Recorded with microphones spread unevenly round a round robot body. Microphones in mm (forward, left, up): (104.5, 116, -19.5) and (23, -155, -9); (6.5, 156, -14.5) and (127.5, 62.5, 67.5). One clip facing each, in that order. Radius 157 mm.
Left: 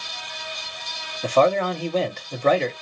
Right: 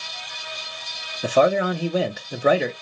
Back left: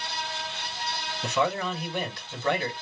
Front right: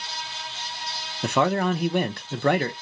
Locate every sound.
1.2 s a man speaking: 35° right, 0.7 m